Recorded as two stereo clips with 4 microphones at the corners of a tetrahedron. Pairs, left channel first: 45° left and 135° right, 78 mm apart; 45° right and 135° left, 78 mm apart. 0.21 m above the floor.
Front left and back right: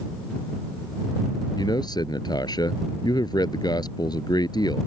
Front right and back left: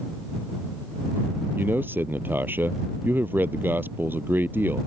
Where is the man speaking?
70° left.